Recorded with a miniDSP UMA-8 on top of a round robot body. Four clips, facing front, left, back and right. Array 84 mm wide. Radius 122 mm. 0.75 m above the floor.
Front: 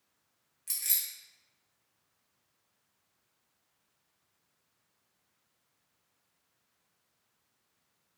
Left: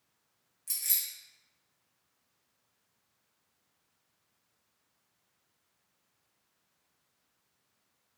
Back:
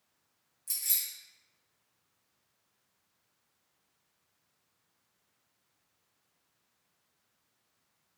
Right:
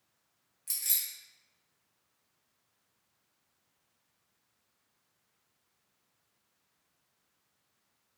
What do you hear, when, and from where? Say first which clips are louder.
0.7 s keys jangling: even, front 1 dB; 20° right, 1.0 m